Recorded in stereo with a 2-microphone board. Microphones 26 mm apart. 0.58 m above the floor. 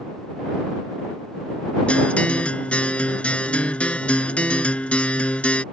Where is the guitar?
60° left (ahead or behind).